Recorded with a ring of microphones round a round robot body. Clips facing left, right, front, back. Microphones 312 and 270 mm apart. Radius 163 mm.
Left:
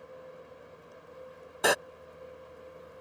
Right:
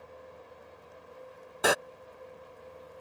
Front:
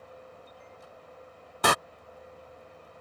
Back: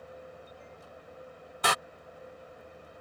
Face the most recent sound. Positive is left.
turn(degrees=0)